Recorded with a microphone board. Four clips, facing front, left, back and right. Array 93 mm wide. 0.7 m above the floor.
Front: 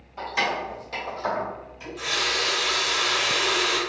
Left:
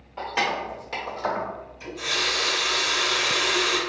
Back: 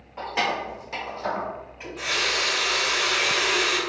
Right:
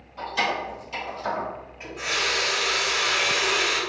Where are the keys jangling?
130° left, 1.5 m; by 1.5 s 80° left, 1.2 m.